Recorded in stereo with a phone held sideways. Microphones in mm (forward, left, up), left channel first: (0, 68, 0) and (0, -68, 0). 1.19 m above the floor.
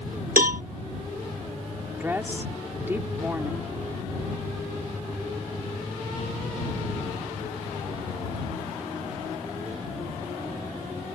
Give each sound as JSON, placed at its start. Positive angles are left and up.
{"t": 0.4, "sound": "a cowbell", "side_deg": -80}
{"t": 2.0, "sound": "a woman speaking", "side_deg": -15}